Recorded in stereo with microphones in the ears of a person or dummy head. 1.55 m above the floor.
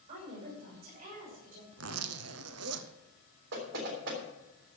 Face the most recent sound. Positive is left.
turn(degrees=-60)  # may be behind; listen again after turning